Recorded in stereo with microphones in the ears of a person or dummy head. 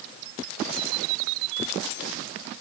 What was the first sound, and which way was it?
Only background noise.